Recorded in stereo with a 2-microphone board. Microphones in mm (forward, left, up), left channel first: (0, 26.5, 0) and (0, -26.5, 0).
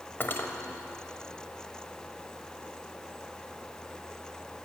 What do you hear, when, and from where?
0.2 s cutlery clinking: 45° left (ahead or behind), 1.1 m